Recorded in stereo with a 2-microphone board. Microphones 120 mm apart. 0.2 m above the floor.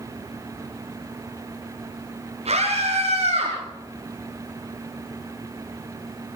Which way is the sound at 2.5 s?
70° right (ahead or behind).